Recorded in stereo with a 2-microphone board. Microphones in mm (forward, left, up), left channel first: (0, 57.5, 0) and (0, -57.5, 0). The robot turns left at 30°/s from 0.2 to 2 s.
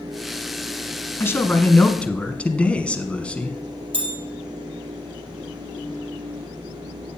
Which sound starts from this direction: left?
A man speaking, at 1.2 s.